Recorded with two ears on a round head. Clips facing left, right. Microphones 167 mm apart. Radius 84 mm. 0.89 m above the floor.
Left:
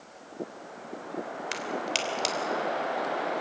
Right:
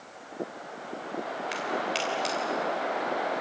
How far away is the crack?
About 3 m.